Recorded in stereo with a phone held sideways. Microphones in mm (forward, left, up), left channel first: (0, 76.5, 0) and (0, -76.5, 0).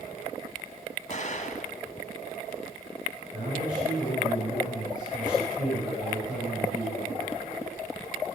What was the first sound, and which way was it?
An explosion, 50° left (ahead or behind).